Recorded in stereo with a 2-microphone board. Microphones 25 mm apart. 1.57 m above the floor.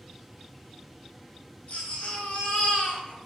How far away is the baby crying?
About 1.1 m.